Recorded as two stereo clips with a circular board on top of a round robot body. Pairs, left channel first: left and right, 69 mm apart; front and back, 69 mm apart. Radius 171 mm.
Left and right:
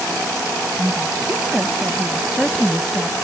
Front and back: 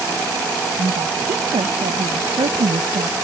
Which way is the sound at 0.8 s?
160° right.